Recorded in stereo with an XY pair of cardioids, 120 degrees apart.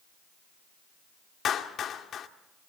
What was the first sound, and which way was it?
A clap, 50° left.